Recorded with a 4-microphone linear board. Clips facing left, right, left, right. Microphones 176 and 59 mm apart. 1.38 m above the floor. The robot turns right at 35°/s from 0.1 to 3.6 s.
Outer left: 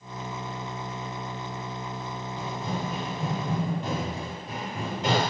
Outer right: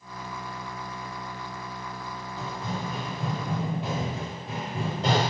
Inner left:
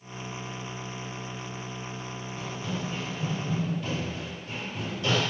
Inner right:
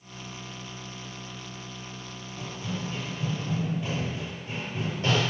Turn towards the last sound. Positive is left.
turn(degrees=-40)  # may be behind; listen again after turning